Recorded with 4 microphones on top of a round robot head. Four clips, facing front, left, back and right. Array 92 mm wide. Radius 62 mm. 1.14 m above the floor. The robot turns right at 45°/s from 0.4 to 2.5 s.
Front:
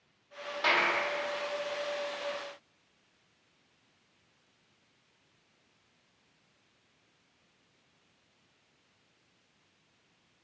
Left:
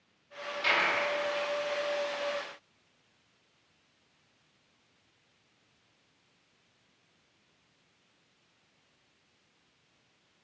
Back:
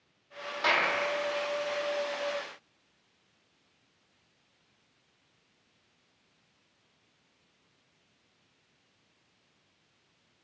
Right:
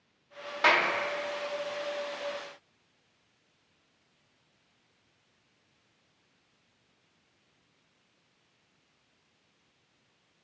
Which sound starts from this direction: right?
A clap, at 0.6 s.